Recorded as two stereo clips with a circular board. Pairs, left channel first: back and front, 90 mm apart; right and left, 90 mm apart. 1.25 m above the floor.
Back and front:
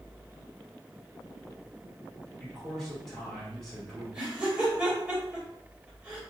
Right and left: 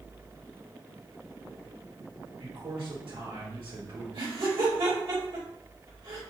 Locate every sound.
2.4 s a man speaking: 95° left, 2 m
4.1 s laughter: 80° left, 2 m